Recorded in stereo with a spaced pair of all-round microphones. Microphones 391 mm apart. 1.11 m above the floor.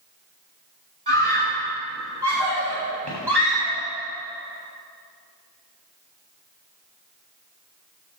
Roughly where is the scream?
Right.